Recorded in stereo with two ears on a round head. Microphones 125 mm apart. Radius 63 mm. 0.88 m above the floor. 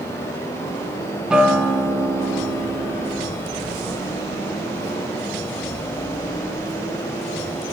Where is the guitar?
5° right (ahead or behind), 0.5 m.